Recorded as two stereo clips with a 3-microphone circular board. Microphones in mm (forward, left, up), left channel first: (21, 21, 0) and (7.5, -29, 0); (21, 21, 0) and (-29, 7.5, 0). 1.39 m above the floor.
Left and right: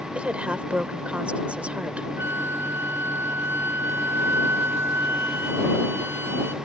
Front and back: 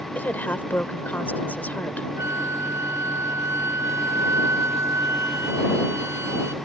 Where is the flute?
145° right.